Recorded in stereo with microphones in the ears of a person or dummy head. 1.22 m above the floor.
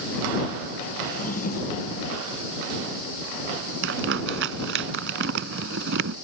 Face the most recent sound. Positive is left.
turn(degrees=-70)  # may be behind; listen again after turning